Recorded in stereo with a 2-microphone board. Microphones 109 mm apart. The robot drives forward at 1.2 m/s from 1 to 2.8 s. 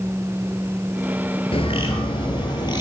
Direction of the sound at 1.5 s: 55° left (ahead or behind).